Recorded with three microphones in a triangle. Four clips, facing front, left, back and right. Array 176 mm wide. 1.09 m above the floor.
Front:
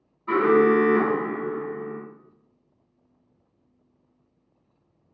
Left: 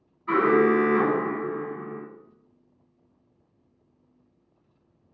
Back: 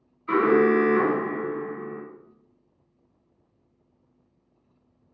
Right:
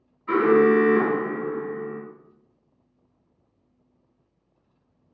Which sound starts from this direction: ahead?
An alarm, at 0.3 s.